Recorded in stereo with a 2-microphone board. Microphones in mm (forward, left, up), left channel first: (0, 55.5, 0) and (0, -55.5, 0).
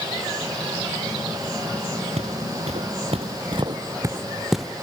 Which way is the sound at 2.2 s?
75° right (ahead or behind).